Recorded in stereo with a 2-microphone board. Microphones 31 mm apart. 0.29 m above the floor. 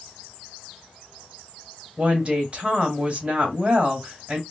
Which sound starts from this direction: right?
A woman speaking, at 2.0 s.